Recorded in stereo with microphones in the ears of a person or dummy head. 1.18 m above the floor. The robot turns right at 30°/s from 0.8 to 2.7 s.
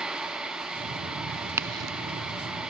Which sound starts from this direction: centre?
A crack, at 1.5 s.